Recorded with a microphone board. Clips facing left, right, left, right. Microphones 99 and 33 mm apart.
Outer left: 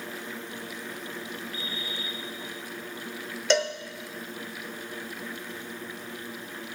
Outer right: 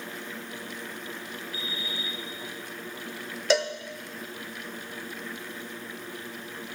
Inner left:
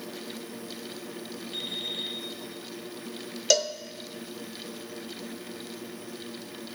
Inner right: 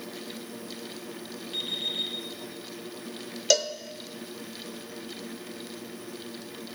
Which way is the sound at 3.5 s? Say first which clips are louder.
Even, even; 5° right (ahead or behind).